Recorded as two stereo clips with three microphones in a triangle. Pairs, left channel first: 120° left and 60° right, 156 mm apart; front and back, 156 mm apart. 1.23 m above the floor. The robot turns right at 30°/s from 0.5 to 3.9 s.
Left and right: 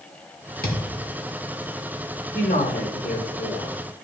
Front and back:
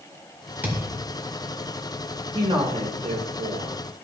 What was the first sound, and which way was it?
A thud, 100° left.